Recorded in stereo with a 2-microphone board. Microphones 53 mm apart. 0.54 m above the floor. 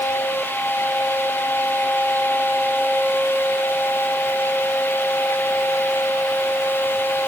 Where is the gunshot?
I don't hear a gunshot.